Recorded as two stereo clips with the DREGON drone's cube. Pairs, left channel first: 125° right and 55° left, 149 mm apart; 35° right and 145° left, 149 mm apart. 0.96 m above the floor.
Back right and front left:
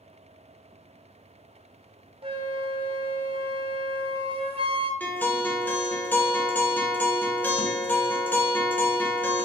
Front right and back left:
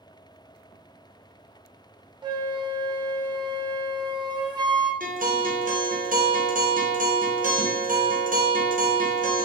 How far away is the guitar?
About 0.7 m.